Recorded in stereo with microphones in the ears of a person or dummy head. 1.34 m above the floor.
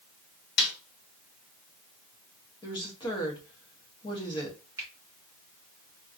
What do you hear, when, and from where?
0.6 s a snare drum: 55° left (ahead or behind), 1.2 m
2.6 s a woman speaking: 25° left (ahead or behind), 1.1 m
4.8 s a finger snap: 10° right (ahead or behind), 1.8 m